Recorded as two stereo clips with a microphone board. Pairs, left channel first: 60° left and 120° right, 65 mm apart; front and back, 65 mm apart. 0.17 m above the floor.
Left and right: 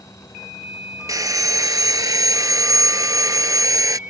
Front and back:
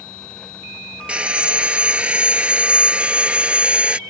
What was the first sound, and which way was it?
Sawing, 110° right.